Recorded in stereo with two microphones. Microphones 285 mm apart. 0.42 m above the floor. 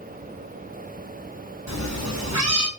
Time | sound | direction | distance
1.7 | a cat meowing | 70° right (ahead or behind) | 1.4 m